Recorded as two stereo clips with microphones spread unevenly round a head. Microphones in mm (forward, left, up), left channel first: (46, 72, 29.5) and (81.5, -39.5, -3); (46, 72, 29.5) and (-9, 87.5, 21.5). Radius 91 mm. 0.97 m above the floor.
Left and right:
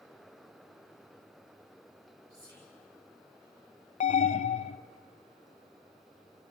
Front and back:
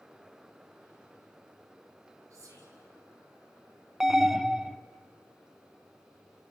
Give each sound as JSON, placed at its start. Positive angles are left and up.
{"t": 2.3, "sound": "whispering", "azimuth_deg": -140, "distance_m": 4.0}
{"t": 4.0, "sound": "an alarm", "azimuth_deg": 85, "distance_m": 0.7}